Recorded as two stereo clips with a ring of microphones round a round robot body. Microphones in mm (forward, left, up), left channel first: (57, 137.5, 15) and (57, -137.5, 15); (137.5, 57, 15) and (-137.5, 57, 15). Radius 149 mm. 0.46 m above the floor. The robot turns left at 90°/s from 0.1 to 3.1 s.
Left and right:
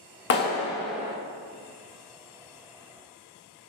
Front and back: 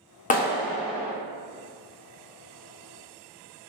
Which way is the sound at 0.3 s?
55° left.